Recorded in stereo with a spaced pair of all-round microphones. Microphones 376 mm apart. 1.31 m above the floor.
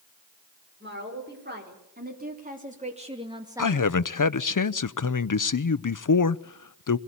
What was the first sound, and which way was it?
A woman speaking, 30° right (ahead or behind).